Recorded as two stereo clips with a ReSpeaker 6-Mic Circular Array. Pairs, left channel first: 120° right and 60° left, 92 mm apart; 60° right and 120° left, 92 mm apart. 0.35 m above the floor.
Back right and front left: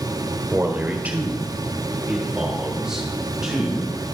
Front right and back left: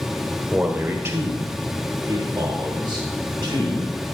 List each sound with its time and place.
0.5 s a man speaking: 70° left, 0.9 m; by 3.9 s 145° left, 2.0 m